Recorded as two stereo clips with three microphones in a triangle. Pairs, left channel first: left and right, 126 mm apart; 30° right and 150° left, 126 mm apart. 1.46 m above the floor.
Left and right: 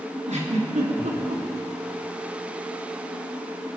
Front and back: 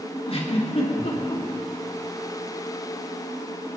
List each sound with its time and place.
0.3 s a giggle: 70° right, 3 m